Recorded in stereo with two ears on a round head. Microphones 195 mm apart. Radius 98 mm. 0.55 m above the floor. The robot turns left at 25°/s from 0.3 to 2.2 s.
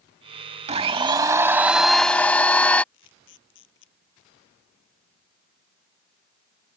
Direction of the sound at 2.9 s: 60° left (ahead or behind).